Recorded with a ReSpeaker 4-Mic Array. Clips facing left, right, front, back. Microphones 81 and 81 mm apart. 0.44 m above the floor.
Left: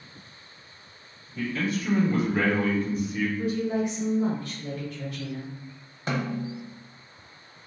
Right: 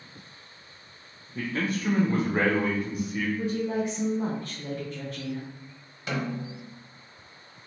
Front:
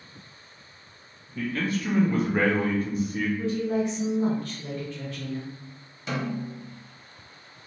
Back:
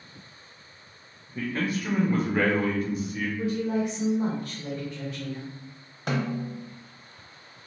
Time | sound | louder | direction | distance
1.4 | a man speaking | left 1 dB, front 1 dB | 125° right | 1.3 m
3.4 | a woman speaking | left 2 dB, back 1 dB | 120° right | 1.1 m
6.1 | a snare drum | left 2 dB, back 2 dB | 145° left | 0.7 m